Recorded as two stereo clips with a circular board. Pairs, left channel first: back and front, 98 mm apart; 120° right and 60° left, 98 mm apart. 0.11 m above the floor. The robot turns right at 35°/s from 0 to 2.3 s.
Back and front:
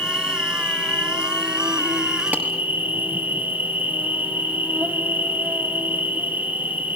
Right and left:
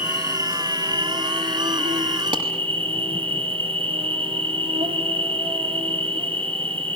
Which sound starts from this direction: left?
A clap, at 2.3 s.